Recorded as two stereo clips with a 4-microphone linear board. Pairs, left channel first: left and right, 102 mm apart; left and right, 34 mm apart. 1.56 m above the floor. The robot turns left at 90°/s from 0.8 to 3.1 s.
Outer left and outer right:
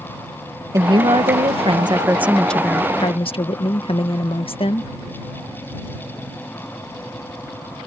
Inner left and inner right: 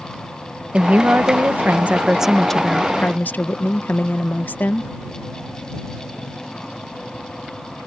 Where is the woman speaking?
35° right; by 4.9 s 115° left.